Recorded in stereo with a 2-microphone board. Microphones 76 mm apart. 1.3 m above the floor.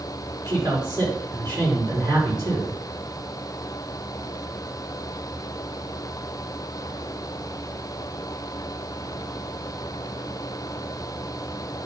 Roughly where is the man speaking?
Right.